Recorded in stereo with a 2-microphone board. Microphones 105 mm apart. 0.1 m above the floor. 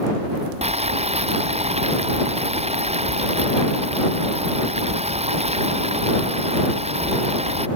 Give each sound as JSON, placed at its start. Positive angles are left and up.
{"t": 0.6, "sound": "boiling", "side_deg": -85}